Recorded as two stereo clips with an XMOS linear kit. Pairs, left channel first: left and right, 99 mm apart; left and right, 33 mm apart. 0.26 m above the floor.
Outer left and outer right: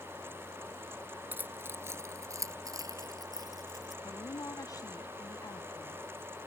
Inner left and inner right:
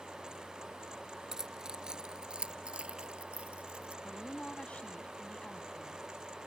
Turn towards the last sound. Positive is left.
turn(degrees=40)  # may be behind; listen again after turning